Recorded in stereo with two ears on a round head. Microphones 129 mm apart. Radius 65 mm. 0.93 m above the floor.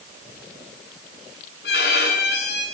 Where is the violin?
75° left (ahead or behind), 8.5 m.